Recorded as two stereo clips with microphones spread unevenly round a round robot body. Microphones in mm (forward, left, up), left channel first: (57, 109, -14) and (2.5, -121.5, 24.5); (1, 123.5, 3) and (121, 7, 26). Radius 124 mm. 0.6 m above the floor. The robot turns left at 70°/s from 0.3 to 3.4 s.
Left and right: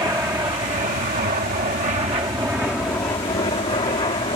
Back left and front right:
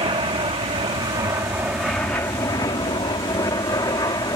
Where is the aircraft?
30° right; by 4.4 s 110° left.